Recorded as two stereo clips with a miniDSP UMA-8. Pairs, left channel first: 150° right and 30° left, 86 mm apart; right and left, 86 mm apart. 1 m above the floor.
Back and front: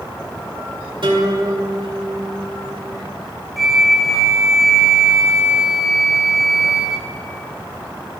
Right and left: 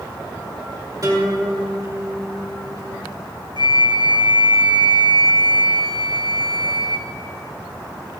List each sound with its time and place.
1.0 s a guitar: 45° left, 2 m
3.6 s a flute: 115° left, 0.8 m